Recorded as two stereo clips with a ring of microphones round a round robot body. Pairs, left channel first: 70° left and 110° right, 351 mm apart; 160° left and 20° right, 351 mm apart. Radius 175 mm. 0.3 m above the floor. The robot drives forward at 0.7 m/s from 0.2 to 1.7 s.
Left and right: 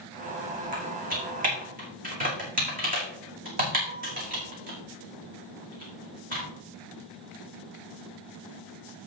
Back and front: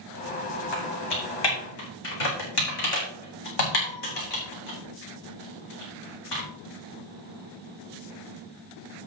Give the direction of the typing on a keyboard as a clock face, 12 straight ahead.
6 o'clock.